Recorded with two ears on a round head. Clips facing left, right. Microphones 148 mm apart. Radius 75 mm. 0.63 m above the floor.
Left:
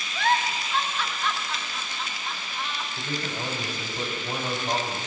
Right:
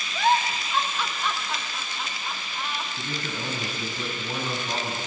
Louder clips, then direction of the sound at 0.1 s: Right 2 dB; 10° right (ahead or behind).